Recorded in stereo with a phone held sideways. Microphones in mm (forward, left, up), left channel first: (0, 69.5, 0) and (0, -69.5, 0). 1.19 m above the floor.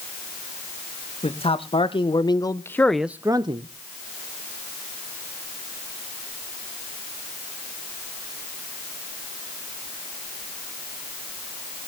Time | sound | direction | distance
1.2 | a man speaking | 45° left (ahead or behind) | 1.8 m